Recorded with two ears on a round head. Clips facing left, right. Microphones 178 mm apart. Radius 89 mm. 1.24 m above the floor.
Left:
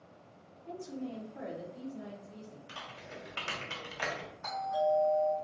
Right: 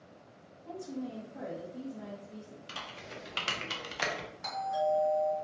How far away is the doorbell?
About 1.8 m.